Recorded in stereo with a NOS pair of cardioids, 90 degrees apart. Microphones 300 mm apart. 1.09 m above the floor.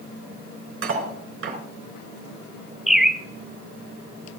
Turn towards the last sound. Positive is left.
turn(degrees=0)